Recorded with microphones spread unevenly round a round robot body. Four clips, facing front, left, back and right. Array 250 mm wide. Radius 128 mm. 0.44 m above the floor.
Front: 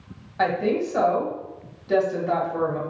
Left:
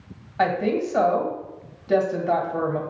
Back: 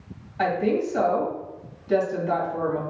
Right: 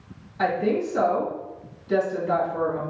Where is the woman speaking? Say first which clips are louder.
Left 1 dB, even; 60° left, 2 m.